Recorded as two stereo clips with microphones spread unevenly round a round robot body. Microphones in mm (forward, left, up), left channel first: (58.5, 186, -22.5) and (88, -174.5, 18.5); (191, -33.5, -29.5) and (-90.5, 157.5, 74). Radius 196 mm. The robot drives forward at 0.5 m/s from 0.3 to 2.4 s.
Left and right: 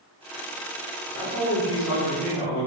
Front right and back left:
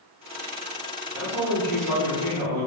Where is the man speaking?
160° right, 1.4 m; by 2.7 s 165° right, 1.8 m.